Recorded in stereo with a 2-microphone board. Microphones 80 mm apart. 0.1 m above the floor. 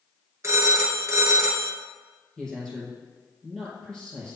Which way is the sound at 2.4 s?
5° left (ahead or behind).